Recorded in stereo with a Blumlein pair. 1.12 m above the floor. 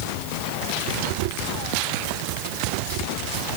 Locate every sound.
Only background noise.